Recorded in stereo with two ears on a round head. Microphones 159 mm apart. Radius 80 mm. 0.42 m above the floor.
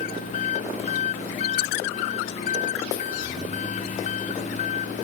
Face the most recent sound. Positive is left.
turn(degrees=45)  # may be behind; listen again after turning